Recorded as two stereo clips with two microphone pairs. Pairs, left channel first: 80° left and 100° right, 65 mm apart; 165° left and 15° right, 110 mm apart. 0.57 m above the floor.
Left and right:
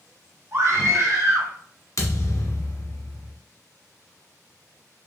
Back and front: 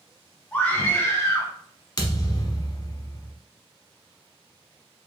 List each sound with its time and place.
0.5 s a scream: 120° right, 1.6 m; by 1.5 s 140° right, 1.9 m
2.0 s a thud: 110° left, 1.1 m